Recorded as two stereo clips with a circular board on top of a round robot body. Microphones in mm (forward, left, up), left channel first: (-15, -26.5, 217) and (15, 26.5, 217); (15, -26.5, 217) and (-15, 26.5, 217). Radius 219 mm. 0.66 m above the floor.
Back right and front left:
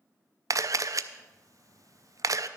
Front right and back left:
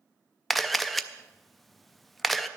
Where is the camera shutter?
30° left, 0.5 m.